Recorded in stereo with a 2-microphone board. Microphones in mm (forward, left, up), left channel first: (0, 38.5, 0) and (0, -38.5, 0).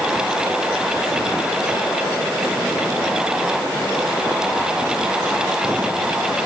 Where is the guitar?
No guitar in this recording.